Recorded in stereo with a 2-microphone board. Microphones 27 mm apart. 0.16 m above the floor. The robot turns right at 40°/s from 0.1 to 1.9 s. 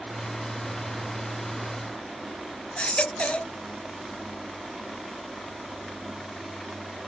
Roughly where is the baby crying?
Left.